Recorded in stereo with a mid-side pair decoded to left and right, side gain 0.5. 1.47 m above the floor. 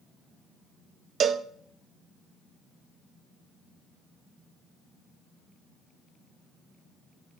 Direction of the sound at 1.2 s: 50° right.